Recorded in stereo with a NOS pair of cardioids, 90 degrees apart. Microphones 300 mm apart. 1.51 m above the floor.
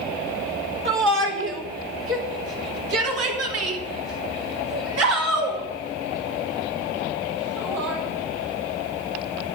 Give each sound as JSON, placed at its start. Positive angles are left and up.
{"t": 0.8, "sound": "a shout", "azimuth_deg": -40, "distance_m": 3.5}